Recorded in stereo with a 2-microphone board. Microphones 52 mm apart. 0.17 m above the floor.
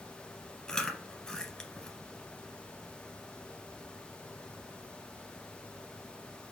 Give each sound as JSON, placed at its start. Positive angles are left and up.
{"t": 0.7, "sound": "chewing", "side_deg": 15, "distance_m": 1.1}